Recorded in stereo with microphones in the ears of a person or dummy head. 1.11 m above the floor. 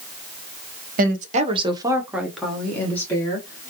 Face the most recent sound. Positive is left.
turn(degrees=10)  # may be behind; listen again after turning